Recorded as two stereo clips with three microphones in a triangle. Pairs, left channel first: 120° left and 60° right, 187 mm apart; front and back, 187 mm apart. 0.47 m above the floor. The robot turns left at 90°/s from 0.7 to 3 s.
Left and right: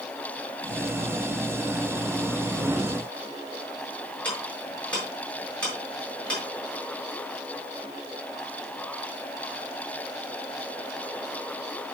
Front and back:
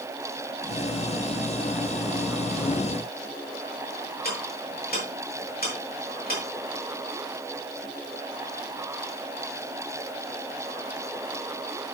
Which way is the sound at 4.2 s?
35° left.